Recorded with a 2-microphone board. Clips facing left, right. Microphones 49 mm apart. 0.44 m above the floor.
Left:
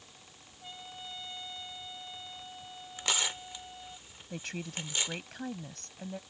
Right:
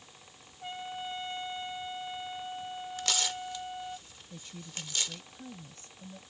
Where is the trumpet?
35° right (ahead or behind).